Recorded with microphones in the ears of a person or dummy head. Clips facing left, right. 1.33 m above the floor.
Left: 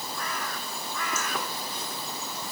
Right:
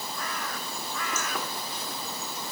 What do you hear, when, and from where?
Only background noise.